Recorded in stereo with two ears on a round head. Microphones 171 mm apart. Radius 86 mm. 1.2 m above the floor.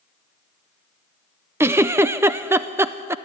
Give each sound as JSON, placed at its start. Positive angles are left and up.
{"t": 1.6, "sound": "a giggle", "side_deg": -10, "distance_m": 0.5}